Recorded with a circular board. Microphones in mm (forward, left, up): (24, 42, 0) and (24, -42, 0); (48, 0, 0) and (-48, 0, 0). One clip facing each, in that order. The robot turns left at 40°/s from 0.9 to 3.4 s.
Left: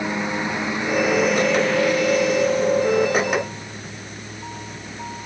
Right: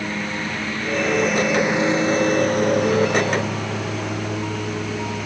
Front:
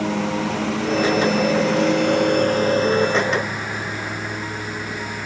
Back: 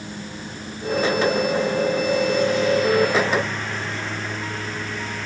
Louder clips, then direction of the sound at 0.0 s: Left 2 dB, front 13 dB; 15° left.